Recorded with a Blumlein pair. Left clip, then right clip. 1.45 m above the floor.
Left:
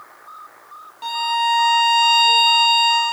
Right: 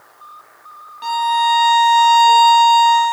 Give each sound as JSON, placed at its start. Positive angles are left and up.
{"t": 1.0, "sound": "a violin", "azimuth_deg": -5, "distance_m": 0.7}